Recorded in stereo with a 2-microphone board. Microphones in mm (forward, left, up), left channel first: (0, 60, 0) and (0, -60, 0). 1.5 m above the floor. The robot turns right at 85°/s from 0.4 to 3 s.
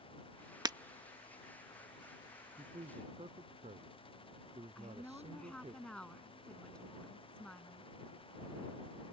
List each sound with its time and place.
0.7 s breaking glass: 35° right (ahead or behind)
2.6 s a man speaking: 120° right; by 5.8 s 80° right
4.8 s a woman speaking: 10° left (ahead or behind)